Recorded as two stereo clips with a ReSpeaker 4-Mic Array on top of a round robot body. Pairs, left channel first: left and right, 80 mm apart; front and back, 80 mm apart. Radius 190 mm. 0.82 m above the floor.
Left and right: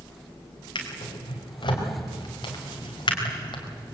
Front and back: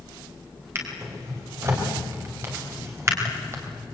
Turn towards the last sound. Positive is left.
turn(degrees=120)